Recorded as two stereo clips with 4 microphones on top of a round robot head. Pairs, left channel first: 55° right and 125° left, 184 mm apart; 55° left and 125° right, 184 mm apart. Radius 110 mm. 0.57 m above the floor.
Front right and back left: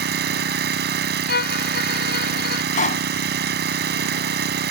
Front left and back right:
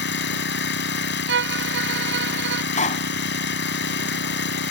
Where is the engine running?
90° left.